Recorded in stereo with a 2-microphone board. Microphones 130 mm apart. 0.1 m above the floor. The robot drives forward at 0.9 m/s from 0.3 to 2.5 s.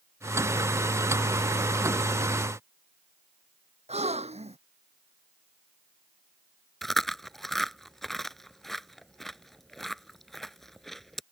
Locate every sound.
3.9 s a gasp: 60° right (ahead or behind)
6.8 s chewing: centre (ahead or behind)